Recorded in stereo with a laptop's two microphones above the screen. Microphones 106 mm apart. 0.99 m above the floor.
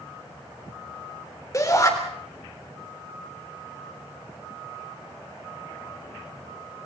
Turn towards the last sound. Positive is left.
turn(degrees=30)  # may be behind; listen again after turning